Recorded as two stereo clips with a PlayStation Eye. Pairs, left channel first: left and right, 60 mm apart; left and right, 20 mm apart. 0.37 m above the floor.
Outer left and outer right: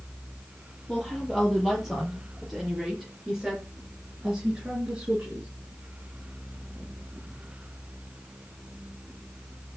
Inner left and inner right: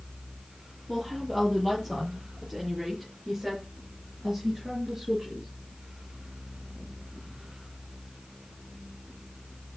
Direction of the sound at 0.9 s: Centre (ahead or behind).